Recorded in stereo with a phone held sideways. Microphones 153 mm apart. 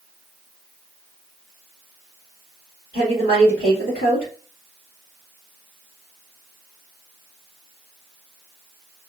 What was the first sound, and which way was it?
A woman speaking, 75° left (ahead or behind).